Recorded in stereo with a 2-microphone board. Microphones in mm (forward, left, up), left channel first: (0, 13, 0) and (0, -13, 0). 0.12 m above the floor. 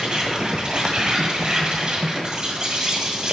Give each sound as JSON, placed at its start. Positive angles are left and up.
{"t": 0.0, "sound": "an insect", "side_deg": -30, "distance_m": 1.7}